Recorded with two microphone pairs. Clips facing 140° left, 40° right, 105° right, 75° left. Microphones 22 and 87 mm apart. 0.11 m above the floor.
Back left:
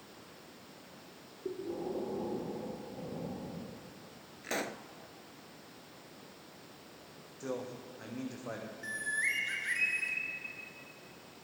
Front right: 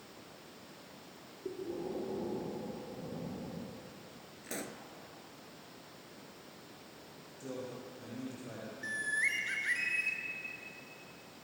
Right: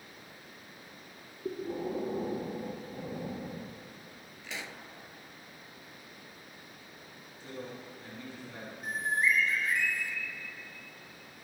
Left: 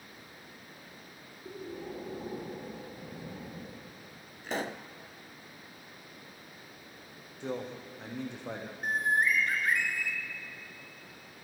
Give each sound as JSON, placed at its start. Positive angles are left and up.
{"t": 1.4, "sound": "breathing", "azimuth_deg": -145, "distance_m": 3.0}
{"t": 4.4, "sound": "a pop", "azimuth_deg": 95, "distance_m": 0.7}
{"t": 7.4, "sound": "a man speaking", "azimuth_deg": 90, "distance_m": 5.5}
{"t": 8.8, "sound": "a bird", "azimuth_deg": 45, "distance_m": 1.5}